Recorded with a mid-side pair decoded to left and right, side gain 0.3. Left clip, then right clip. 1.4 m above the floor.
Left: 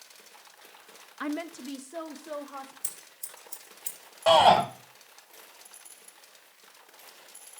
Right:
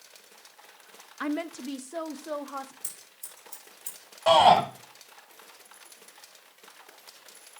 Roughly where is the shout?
Ahead.